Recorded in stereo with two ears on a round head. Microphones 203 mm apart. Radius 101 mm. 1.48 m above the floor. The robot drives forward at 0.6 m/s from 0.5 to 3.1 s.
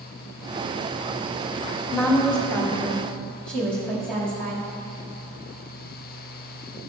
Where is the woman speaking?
5° left (ahead or behind), 1.7 m.